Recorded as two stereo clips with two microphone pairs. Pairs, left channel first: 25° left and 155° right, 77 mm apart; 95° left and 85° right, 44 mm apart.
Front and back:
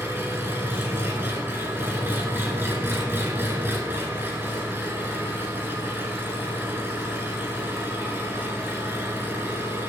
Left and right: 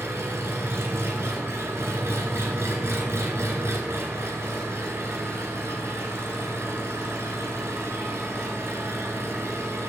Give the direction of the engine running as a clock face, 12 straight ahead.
3 o'clock.